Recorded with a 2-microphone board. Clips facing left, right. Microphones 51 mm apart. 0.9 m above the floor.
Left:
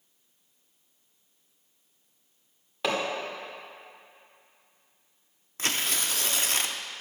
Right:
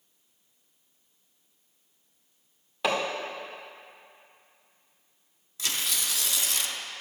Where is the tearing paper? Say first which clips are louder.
Left 2 dB; 40° left (ahead or behind), 0.5 m.